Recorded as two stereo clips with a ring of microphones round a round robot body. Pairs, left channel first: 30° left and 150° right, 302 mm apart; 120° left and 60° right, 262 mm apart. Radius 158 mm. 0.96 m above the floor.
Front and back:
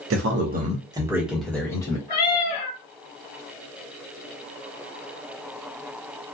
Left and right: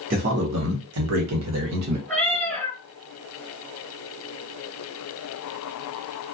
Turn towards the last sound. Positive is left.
turn(degrees=40)